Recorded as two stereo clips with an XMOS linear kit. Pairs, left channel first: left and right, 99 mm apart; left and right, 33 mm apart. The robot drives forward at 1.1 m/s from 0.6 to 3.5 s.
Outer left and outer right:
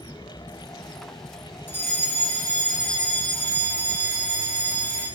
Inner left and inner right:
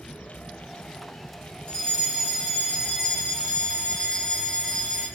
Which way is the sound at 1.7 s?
20° left (ahead or behind).